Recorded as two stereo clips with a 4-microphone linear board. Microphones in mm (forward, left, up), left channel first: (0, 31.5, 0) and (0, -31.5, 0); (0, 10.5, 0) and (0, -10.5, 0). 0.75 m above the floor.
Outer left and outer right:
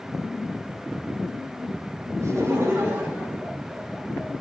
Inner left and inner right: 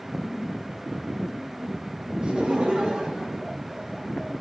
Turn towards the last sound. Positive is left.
turn(degrees=15)  # may be behind; listen again after turning